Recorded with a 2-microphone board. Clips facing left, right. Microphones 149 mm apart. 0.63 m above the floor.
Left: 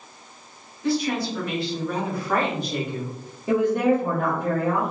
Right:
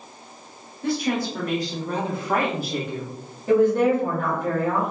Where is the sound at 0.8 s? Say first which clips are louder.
Even; 55° right (ahead or behind), 1.3 m; by 3.2 s 20° left (ahead or behind), 0.7 m.